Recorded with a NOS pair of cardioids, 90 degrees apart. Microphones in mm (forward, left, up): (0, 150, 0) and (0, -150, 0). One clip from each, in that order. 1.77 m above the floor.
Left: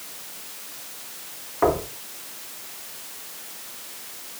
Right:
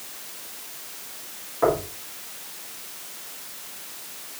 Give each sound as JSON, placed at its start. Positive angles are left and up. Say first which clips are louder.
{"t": 1.6, "sound": "knocking", "louder": "even", "azimuth_deg": 35, "distance_m": 4.5}